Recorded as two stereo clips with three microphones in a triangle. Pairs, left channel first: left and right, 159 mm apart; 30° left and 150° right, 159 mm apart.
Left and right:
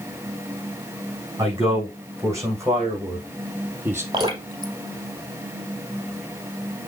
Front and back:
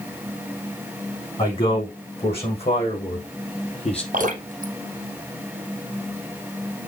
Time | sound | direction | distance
1.4 | a man speaking | 20° right | 5 m
4.1 | dripping | 145° right | 2 m